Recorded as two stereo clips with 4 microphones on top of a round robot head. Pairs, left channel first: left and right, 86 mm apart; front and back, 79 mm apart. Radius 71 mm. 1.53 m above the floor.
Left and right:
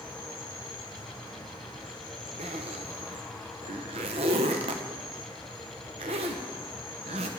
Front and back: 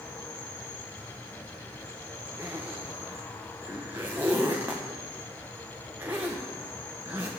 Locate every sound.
0.0 s an insect: 55° left, 6.5 m
2.4 s a zipper: 105° right, 0.8 m